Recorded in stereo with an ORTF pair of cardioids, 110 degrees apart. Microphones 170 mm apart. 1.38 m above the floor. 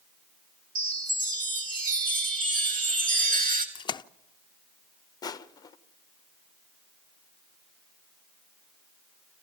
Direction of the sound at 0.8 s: 55° right.